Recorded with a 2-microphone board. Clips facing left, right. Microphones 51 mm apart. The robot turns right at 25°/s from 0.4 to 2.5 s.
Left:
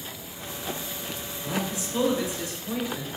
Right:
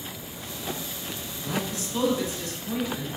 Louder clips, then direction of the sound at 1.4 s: Even; 15° left (ahead or behind).